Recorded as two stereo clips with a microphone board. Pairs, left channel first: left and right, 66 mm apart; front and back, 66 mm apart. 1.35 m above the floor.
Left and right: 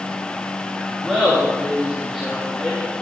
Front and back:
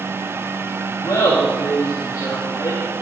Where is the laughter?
5° left, 3 m.